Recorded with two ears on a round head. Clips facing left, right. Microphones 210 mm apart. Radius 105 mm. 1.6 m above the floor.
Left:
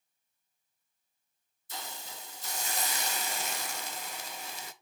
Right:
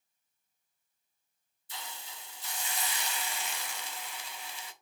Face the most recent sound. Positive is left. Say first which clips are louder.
# left 3 dB
turn(degrees=40)  # may be behind; listen again after turning